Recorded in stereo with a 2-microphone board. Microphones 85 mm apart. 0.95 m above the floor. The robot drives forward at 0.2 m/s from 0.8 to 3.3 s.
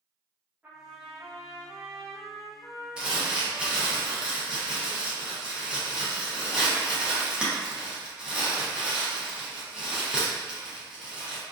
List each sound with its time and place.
0.6 s a trumpet: 15° right (ahead or behind), 0.7 m; by 4.0 s 10° right (ahead or behind), 1.2 m
3.0 s crumpling: 10° right (ahead or behind), 0.6 m